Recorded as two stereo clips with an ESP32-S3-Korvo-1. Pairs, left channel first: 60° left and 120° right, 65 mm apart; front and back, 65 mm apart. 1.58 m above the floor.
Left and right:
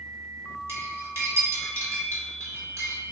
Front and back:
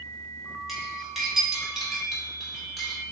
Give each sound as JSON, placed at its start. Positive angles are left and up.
{"t": 0.7, "sound": "cutlery clinking", "azimuth_deg": -95, "distance_m": 1.3}